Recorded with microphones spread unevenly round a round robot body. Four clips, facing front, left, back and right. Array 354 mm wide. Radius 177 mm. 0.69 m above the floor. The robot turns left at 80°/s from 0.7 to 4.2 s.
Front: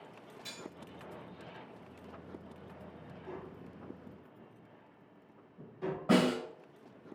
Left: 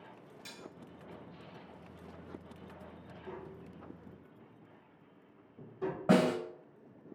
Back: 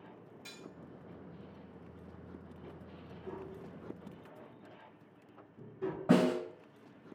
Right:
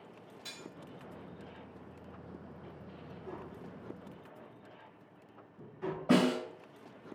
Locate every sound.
0.5 s cutlery clinking: 120° left, 1.6 m
3.2 s tapping: 155° right, 1.0 m; by 6.3 s 130° left, 1.0 m
6.1 s a snare drum: 110° left, 1.9 m